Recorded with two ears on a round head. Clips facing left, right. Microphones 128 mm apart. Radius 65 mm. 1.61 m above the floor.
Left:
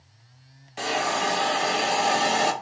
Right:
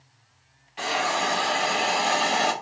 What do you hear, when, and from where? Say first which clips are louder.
0.8 s a hiss: even; 50° left (ahead or behind), 0.9 m